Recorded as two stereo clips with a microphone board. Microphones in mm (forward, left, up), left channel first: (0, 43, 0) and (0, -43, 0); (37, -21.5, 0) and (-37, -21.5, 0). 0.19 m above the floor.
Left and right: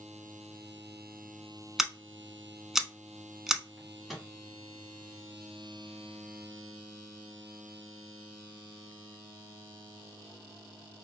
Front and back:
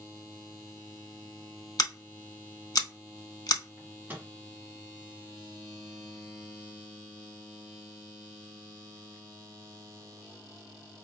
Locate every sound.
1.8 s scissors: 5° right, 0.5 m
3.8 s a microwave: 175° right, 1.1 m